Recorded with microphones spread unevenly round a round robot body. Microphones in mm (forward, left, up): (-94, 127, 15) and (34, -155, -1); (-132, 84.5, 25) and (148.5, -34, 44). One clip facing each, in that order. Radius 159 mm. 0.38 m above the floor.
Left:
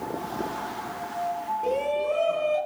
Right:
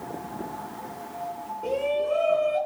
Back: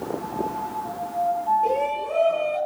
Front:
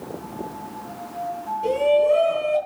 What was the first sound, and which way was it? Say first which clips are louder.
A shout: even, front 10 dB; 35° left.